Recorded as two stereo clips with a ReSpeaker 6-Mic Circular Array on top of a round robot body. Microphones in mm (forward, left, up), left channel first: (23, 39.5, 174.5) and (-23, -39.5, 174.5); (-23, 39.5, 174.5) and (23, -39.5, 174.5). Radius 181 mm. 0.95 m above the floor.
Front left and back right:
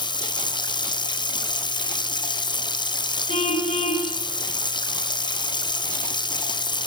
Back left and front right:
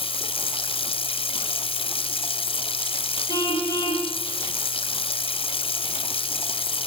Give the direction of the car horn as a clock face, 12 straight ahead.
10 o'clock.